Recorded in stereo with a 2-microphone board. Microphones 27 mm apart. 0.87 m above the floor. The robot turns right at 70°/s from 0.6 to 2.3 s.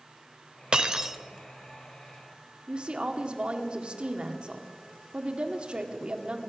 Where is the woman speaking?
40° right (ahead or behind), 1.7 m.